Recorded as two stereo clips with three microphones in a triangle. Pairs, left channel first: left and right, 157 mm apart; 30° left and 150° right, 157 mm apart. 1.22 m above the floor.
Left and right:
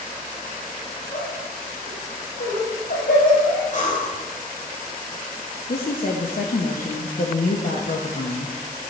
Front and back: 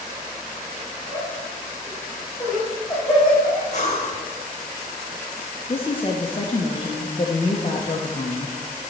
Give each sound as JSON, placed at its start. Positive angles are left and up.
{"t": 1.1, "sound": "laughter", "azimuth_deg": 115, "distance_m": 3.5}
{"t": 3.7, "sound": "breathing", "azimuth_deg": 65, "distance_m": 1.5}
{"t": 5.7, "sound": "a woman speaking", "azimuth_deg": 80, "distance_m": 0.9}